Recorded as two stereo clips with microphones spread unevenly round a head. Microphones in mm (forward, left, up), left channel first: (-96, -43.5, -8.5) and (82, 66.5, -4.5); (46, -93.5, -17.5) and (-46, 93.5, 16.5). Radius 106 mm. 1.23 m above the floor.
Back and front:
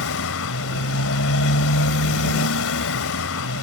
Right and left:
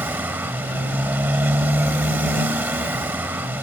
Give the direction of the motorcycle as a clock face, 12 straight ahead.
6 o'clock.